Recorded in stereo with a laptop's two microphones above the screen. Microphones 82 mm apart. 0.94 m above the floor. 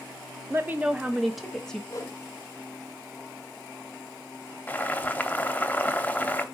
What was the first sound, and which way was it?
A woman speaking, 30° right (ahead or behind).